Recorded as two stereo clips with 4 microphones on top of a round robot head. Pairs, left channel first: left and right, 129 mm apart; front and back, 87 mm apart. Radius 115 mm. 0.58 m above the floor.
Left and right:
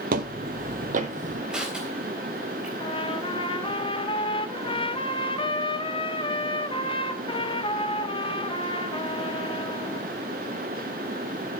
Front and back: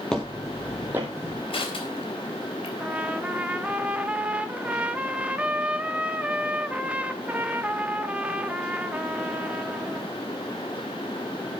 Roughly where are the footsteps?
Right.